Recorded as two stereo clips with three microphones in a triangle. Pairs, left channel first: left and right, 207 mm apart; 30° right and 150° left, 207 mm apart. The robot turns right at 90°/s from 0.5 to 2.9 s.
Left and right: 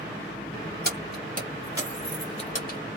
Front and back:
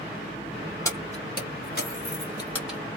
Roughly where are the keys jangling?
Right.